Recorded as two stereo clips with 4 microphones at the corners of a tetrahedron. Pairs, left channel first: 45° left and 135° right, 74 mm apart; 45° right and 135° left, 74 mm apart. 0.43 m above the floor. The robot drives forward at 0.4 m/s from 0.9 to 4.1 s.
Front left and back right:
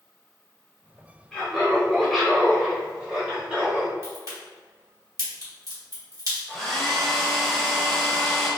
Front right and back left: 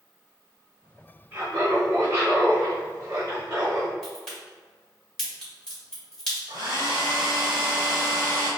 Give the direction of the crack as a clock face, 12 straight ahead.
4 o'clock.